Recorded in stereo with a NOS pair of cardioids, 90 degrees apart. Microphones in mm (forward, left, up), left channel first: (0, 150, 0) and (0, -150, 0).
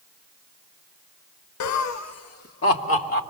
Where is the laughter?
70° left, 0.7 m; by 3.2 s 40° left, 2.5 m.